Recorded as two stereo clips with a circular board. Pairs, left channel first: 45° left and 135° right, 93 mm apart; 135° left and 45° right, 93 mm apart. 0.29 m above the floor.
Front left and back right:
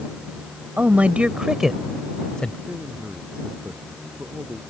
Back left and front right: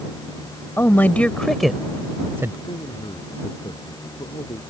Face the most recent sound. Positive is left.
turn(degrees=150)